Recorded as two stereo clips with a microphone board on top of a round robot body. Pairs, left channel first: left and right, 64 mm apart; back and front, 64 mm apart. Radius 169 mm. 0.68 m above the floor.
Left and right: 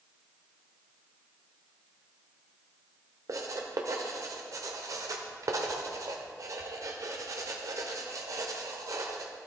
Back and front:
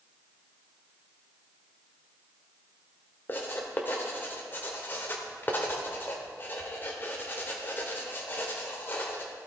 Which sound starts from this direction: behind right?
Writing, at 3.3 s.